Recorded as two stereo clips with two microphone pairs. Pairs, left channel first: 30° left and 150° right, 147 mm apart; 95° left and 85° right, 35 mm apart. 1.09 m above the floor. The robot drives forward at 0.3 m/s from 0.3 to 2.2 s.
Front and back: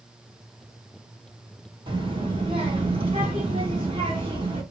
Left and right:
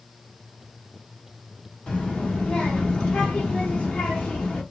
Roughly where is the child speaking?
Behind left.